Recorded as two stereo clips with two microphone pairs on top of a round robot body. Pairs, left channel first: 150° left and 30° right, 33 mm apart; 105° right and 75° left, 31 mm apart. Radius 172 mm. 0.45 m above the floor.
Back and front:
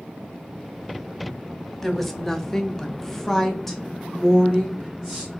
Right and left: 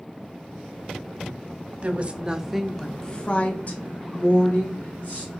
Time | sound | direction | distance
1.8 | a woman speaking | 70° left | 0.9 m